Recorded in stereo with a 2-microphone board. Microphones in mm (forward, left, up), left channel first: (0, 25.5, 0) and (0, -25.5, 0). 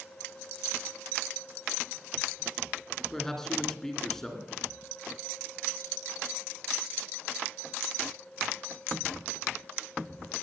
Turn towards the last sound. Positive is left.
turn(degrees=10)  # may be behind; listen again after turning